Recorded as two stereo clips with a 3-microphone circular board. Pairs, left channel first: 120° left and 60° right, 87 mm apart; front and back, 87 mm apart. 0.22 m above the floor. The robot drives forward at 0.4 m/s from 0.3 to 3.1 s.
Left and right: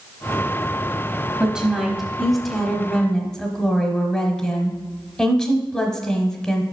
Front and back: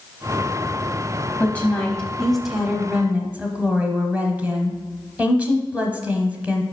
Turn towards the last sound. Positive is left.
turn(degrees=180)